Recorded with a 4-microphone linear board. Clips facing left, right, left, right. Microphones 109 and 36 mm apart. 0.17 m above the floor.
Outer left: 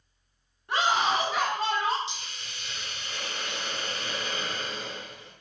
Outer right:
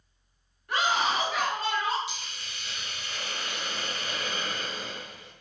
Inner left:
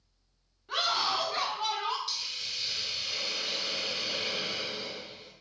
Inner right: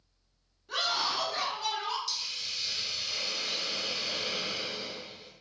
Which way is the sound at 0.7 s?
30° left (ahead or behind).